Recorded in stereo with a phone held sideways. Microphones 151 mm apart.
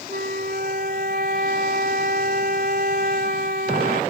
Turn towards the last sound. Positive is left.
turn(degrees=-80)